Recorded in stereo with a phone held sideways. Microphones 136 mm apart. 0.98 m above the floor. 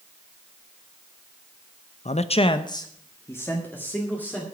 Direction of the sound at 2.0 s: 55° left (ahead or behind).